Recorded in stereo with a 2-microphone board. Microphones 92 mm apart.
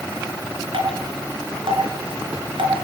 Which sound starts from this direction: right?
Dripping, at 0.7 s.